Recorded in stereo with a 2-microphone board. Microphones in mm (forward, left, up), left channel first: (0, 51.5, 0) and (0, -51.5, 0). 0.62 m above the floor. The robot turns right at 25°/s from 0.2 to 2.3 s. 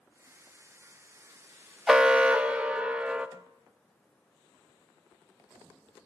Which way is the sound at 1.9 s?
5° right (ahead or behind).